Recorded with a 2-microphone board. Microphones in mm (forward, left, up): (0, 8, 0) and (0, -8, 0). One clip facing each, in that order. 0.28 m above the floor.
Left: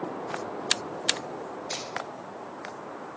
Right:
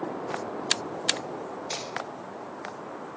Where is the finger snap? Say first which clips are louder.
Even; 10° right (ahead or behind), 1.3 m.